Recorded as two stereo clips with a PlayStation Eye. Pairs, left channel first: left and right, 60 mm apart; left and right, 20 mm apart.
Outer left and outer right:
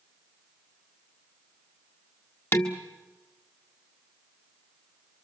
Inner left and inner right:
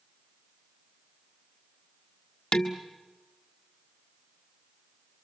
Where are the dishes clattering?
45° left (ahead or behind), 1.7 m.